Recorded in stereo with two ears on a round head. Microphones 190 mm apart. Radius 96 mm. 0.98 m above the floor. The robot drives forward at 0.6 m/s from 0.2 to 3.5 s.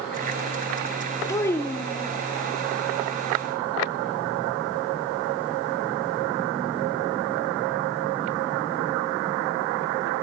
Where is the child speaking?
15° left (ahead or behind), 0.6 m; by 2.2 s 10° left (ahead or behind), 1.1 m.